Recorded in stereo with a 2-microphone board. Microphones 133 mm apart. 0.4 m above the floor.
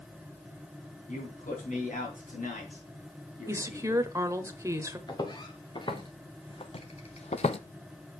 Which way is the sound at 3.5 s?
25° right (ahead or behind).